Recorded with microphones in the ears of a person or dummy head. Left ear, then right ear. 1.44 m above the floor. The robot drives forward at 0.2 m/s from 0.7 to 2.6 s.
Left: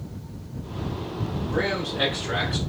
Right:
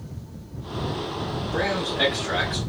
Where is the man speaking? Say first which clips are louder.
Right 1 dB; 25° right (ahead or behind), 3 m.